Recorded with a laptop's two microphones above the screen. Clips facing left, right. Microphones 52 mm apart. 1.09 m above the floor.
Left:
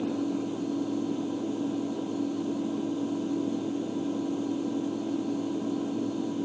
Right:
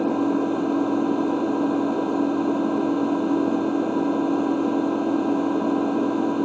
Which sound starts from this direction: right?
An engine running, at 0.0 s.